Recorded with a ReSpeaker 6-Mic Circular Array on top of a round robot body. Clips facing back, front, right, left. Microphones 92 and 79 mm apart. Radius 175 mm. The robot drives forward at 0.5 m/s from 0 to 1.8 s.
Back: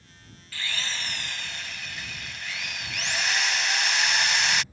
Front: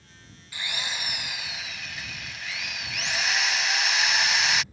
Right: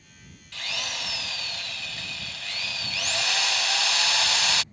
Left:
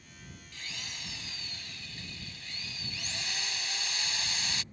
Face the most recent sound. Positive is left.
turn(degrees=-90)